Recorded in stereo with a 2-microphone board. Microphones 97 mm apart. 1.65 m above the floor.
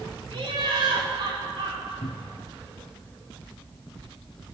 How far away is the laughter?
About 3 m.